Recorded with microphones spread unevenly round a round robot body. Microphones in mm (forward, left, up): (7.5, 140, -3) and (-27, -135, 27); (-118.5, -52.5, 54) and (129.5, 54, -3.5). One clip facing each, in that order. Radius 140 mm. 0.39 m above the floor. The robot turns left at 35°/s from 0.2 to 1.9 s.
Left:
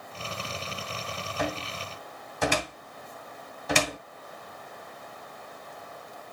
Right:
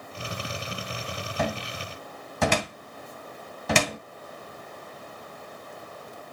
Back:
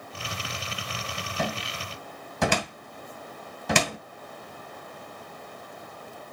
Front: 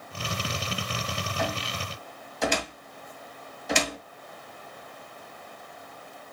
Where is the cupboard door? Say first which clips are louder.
Right 2 dB, back 2 dB; 100° right, 2.5 m; by 4.0 s 120° right, 2.5 m.